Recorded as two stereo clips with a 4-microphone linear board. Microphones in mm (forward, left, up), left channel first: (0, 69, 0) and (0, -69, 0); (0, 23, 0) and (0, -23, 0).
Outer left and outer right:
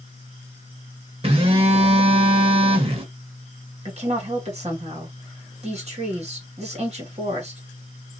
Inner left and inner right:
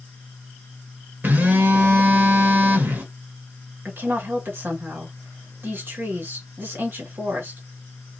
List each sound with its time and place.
1.2 s a phone buzzing: 40° right (ahead or behind), 1.0 m
3.9 s a woman speaking: 50° right (ahead or behind), 1.6 m